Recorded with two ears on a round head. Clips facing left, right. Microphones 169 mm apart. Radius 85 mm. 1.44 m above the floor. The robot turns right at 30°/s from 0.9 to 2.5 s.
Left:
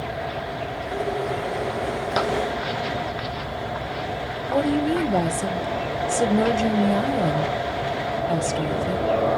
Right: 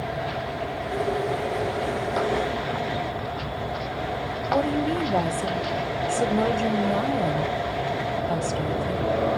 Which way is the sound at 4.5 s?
15° left (ahead or behind).